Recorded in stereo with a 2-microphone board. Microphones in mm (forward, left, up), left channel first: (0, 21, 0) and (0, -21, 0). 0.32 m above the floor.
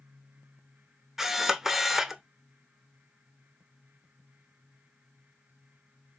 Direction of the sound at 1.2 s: 10° right (ahead or behind).